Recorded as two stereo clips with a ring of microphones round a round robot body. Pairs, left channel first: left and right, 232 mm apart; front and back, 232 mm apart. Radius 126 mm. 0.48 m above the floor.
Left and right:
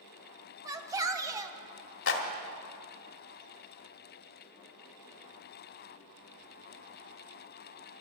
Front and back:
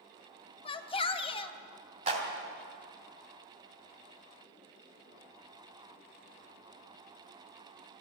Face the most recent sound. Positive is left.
turn(degrees=120)